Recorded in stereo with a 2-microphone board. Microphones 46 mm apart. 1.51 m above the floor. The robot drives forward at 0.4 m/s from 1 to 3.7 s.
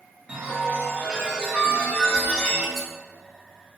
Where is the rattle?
5° left (ahead or behind), 0.6 m.